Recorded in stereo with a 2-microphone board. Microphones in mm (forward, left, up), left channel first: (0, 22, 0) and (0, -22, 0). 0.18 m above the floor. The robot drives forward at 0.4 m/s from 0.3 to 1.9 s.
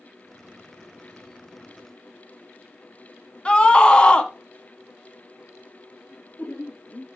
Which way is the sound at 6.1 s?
45° left (ahead or behind).